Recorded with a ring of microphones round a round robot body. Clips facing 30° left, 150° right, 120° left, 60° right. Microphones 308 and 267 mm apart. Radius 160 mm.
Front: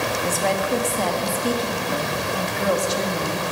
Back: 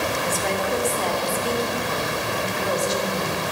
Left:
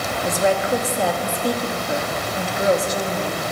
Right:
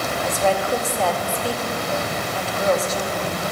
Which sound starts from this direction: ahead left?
A woman speaking, at 0.2 s.